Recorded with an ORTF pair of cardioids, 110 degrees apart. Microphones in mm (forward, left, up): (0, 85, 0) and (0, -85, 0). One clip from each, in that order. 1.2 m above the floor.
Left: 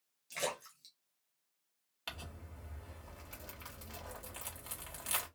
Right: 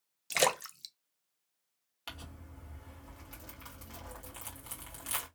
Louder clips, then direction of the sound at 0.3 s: Right 10 dB; 70° right.